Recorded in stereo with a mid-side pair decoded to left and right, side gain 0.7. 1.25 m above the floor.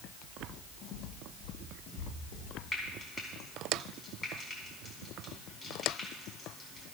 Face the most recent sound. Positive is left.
turn(degrees=20)